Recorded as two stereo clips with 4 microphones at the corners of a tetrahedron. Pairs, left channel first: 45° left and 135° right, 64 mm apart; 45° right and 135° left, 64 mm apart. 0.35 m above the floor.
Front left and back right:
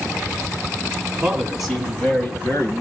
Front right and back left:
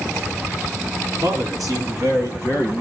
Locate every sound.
1.2 s a man speaking: 145° left, 3 m; by 2.8 s 85° left, 2 m